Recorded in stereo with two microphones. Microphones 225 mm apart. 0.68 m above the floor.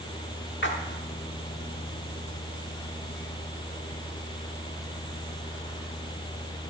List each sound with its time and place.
0.6 s a splash: 55° left (ahead or behind), 0.9 m